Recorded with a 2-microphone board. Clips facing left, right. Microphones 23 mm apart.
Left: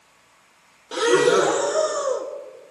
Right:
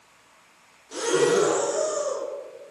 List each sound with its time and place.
0.9 s breathing: 55° left (ahead or behind), 1.3 m